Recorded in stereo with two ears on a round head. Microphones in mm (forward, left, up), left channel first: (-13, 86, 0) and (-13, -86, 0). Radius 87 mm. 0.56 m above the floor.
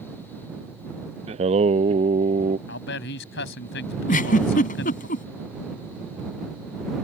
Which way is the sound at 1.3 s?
35° right (ahead or behind).